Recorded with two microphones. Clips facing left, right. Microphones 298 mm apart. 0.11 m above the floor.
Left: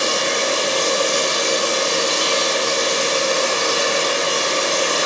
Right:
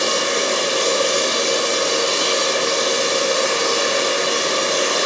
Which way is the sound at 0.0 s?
20° right (ahead or behind).